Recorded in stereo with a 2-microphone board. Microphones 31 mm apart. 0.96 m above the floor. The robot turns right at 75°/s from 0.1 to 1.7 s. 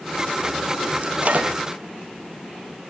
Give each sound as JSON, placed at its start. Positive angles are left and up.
{"t": 1.0, "sound": "a microwave", "azimuth_deg": -105, "distance_m": 0.7}